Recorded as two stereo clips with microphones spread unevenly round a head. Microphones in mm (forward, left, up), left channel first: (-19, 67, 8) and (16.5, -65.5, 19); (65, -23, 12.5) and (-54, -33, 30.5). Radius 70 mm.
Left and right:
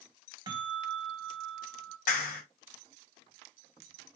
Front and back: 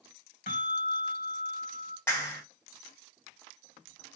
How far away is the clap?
About 2.5 m.